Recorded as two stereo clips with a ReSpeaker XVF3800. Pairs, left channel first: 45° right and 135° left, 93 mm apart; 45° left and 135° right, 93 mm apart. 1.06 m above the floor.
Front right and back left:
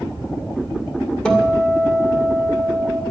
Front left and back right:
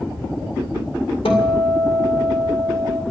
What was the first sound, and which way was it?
A guitar, 35° left.